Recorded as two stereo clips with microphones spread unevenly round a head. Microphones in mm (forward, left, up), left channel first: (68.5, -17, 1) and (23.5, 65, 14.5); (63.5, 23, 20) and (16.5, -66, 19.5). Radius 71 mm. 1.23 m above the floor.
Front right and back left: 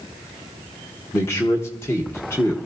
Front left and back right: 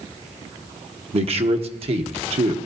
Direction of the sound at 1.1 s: 125° right.